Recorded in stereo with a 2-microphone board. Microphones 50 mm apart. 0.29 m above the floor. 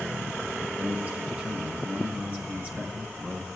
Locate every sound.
0.8 s a man speaking: 30° right (ahead or behind), 3.5 m